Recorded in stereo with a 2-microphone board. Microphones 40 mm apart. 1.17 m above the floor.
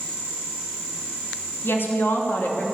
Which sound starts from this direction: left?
A woman speaking, at 1.6 s.